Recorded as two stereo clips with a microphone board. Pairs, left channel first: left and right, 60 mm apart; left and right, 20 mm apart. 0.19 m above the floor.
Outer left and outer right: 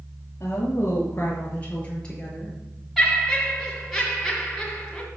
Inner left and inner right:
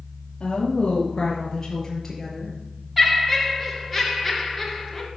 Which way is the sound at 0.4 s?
45° left (ahead or behind).